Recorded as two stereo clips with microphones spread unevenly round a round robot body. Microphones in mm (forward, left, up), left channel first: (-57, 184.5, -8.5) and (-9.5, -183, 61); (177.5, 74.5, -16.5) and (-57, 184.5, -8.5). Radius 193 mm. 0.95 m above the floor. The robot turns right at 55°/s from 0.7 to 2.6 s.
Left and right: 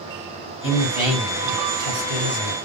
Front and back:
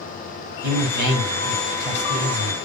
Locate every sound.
0.6 s a man speaking: straight behind, 4 m; by 2.5 s 80° right, 4 m